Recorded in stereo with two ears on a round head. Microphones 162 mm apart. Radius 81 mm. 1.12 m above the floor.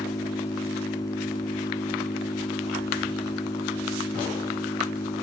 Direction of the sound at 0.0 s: 20° left (ahead or behind).